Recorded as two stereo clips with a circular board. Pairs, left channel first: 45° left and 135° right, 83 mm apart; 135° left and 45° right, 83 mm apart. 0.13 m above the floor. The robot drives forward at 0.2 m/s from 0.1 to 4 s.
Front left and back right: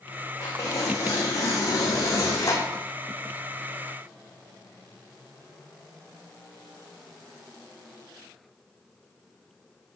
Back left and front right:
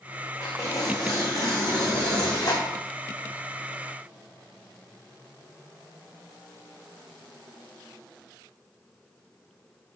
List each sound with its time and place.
0.4 s tearing paper: 90° left, 3 m; by 2.8 s 95° left, 3 m